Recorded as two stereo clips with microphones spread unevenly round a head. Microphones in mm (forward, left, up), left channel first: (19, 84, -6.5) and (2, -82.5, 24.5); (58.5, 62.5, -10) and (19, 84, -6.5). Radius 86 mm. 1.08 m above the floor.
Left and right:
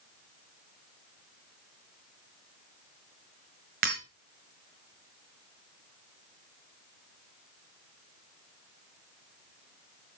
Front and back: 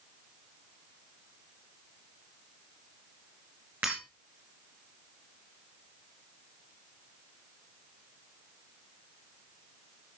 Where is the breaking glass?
135° right, 5 m.